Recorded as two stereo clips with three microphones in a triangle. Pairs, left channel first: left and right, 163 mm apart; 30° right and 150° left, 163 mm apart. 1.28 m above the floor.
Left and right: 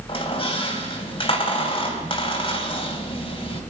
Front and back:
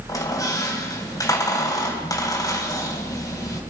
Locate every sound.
0.1 s a squeak: 35° left, 3 m